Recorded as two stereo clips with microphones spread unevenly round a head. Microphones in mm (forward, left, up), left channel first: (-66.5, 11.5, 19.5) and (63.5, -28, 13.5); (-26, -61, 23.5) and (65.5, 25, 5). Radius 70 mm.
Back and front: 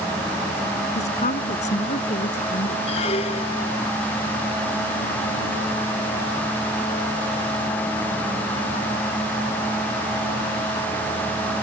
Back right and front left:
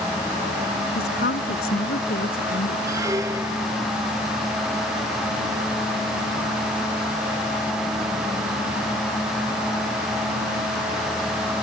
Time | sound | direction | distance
0.9 | a woman speaking | 155° right | ?
2.9 | a squeak | 115° left | ?